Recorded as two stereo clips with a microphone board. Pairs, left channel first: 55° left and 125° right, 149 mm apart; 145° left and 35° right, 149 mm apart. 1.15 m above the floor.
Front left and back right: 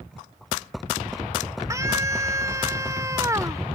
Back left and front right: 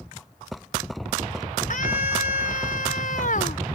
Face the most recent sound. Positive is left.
turn(degrees=170)